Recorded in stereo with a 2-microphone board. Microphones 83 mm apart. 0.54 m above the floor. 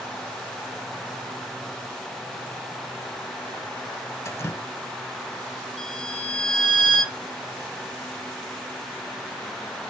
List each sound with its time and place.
4.2 s dripping: 35° left (ahead or behind), 0.7 m
5.8 s a violin: 10° left (ahead or behind), 3.5 m